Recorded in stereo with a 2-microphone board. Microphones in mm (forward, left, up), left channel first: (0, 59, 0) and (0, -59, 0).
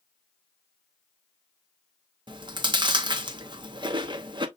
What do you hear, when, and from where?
2.3 s chewing: 40° right (ahead or behind), 0.6 m